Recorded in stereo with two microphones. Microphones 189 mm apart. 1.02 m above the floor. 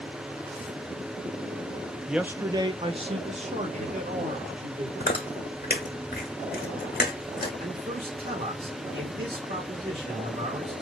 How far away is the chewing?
About 1.2 m.